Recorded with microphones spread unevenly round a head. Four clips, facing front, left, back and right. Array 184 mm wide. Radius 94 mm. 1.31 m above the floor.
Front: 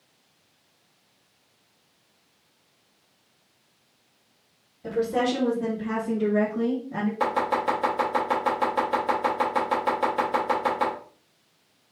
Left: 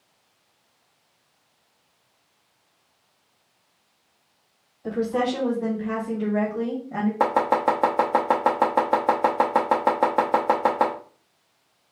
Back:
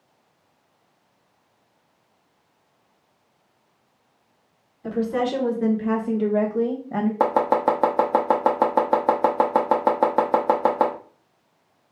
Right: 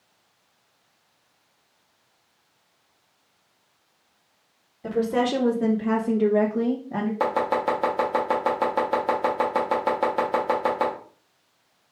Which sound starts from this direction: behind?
Chopping, at 7.2 s.